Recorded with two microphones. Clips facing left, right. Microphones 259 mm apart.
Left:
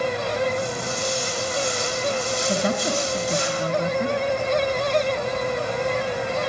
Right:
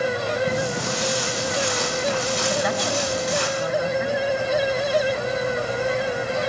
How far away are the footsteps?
About 6.5 m.